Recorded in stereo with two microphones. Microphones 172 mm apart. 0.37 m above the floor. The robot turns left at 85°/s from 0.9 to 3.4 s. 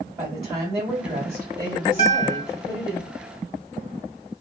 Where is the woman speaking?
30° right, 1.8 m; by 3.0 s 150° left, 1.8 m.